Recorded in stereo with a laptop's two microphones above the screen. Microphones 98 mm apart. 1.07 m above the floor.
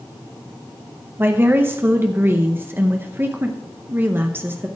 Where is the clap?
I don't hear a clap.